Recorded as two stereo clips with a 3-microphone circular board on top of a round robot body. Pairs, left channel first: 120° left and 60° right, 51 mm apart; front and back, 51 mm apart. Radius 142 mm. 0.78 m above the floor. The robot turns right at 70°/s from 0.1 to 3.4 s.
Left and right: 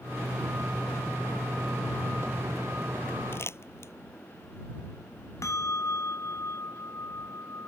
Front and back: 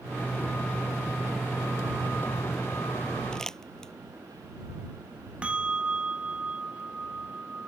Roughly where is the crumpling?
Left.